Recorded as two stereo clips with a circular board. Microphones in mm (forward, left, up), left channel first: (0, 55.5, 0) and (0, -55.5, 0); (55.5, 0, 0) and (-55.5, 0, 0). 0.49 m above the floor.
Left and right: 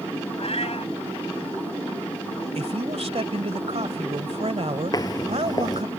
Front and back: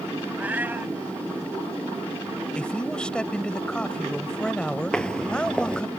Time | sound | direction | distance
0.4 | a cat meowing | 105° left | ?
2.5 | a man speaking | 80° right | ?
4.9 | footsteps | 75° left | ?